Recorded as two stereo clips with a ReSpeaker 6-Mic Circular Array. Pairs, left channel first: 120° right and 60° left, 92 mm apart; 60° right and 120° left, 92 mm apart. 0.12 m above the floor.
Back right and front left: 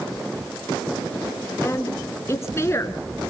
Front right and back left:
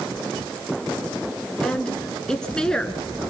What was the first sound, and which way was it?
A woman speaking, 135° right.